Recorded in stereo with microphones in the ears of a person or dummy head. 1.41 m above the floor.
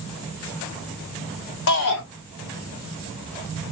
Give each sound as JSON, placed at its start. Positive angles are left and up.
{"t": 1.7, "sound": "a shout", "side_deg": 65, "distance_m": 0.9}